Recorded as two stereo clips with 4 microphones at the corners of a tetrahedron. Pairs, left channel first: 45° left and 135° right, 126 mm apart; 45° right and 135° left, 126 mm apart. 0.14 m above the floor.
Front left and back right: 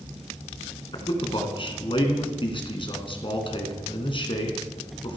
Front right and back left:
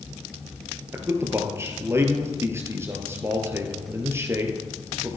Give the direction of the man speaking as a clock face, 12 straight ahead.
10 o'clock.